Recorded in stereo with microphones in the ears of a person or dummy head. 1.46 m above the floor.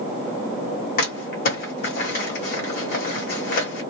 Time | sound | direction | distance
1.0 | crumpling | 55° left (ahead or behind) | 1.2 m